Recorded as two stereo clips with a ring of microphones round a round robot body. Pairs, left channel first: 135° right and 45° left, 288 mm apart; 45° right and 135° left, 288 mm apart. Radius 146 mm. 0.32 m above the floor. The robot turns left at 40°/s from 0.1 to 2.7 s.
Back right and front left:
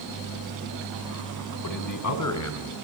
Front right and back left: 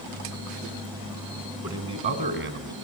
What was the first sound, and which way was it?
A man speaking, 140° right.